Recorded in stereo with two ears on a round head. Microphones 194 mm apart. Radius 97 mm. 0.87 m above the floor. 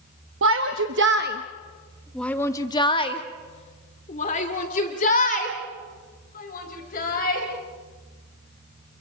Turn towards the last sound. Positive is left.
turn(degrees=40)  # may be behind; listen again after turning